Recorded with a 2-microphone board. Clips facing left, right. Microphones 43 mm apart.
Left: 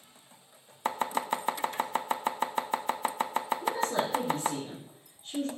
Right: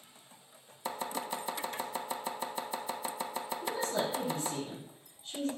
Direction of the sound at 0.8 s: 45° left (ahead or behind).